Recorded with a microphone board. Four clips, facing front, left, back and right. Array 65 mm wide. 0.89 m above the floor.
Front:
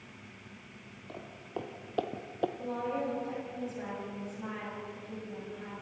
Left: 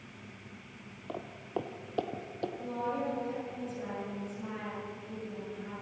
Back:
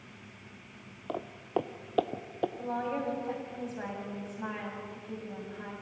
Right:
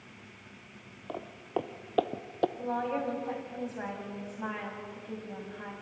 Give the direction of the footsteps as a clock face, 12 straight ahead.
6 o'clock.